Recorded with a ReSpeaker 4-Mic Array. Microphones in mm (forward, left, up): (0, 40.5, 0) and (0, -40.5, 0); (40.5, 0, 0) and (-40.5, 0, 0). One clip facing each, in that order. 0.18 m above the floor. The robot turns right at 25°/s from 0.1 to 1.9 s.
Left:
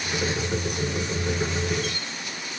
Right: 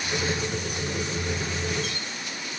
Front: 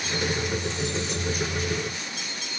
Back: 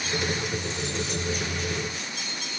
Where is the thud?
I don't hear a thud.